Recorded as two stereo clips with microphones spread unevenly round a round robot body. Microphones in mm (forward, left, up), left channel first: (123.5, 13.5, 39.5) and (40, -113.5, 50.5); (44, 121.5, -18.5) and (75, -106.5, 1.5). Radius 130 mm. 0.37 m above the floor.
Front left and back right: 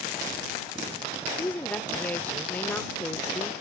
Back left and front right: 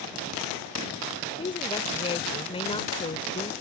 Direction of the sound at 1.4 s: 115° left.